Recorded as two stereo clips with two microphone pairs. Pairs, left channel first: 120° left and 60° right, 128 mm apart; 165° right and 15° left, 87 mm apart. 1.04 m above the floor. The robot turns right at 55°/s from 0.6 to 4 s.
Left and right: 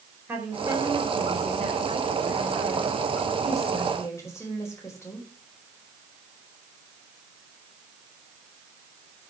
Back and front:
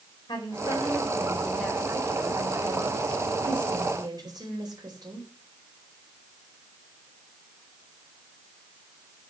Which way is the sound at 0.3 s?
135° right.